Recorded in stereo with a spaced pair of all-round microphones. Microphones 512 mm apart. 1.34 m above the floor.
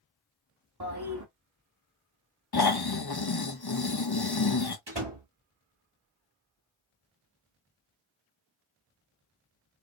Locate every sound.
0.8 s a toilet flushing: 45° right (ahead or behind), 1.6 m
2.5 s snoring: 45° left (ahead or behind), 0.9 m
4.9 s a door slam: 55° right (ahead or behind), 1.8 m